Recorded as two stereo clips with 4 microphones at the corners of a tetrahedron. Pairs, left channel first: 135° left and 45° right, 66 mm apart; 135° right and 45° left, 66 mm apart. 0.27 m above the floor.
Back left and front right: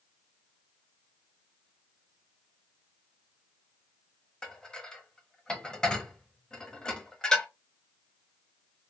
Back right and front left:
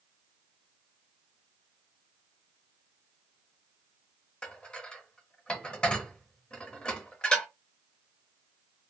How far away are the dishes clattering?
About 0.7 m.